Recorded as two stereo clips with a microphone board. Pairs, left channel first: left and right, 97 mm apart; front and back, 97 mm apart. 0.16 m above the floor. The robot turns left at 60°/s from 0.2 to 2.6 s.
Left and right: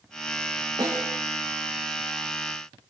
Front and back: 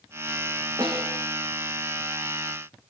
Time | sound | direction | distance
0.8 | a snare drum | 135° right | 8 m